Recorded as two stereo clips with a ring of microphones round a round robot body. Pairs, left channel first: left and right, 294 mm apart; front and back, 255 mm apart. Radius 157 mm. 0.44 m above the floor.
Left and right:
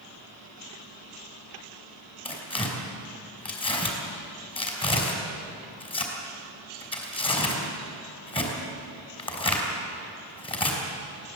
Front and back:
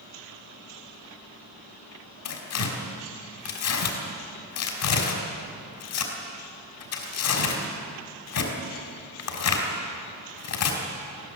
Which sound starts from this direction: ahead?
Tearing paper, at 2.2 s.